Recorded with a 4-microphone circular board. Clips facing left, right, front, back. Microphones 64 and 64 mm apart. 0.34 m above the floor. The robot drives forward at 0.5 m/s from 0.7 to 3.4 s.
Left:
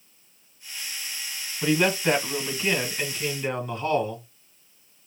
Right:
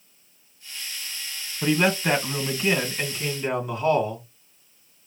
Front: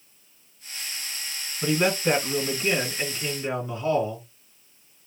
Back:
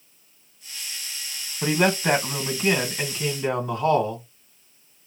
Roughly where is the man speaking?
Behind.